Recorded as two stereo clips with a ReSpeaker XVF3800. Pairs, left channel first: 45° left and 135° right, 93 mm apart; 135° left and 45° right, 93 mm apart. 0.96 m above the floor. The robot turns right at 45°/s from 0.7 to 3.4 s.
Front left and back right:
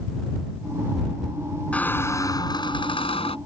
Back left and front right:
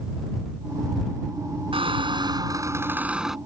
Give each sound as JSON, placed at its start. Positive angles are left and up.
{"t": 1.7, "sound": "a squeak", "azimuth_deg": -30}